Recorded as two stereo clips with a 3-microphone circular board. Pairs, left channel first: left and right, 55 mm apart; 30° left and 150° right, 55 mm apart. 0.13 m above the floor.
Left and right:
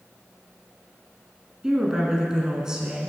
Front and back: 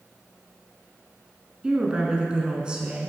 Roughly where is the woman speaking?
Behind right.